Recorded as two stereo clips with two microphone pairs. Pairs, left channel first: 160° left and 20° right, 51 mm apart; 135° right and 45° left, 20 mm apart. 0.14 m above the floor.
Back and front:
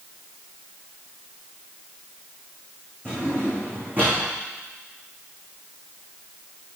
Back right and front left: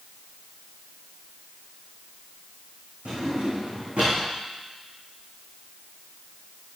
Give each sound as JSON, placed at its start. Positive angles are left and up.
{"t": 3.0, "sound": "a drawer", "azimuth_deg": 35, "distance_m": 5.0}